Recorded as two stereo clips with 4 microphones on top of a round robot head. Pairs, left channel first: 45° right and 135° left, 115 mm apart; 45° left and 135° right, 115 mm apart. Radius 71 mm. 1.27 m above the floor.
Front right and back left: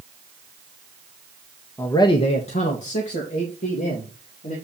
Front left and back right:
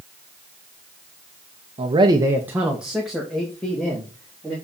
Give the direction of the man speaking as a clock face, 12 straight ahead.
4 o'clock.